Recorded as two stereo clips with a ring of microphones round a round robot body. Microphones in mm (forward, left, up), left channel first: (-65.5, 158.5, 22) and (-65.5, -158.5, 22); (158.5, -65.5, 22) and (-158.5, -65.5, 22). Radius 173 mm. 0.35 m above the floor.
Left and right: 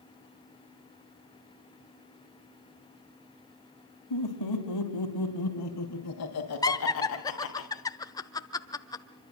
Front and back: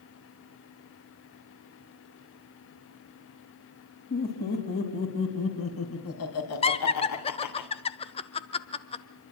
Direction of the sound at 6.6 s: 35° left.